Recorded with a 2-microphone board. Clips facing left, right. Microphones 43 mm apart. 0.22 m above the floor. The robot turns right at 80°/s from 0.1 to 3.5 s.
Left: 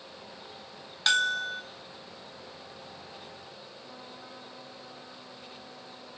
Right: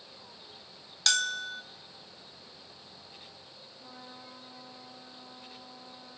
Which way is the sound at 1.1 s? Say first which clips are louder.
Left 4 dB; 20° left (ahead or behind).